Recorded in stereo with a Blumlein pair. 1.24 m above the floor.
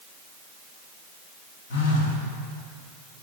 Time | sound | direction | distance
1.7 | a phone buzzing | 55° left | 1.8 m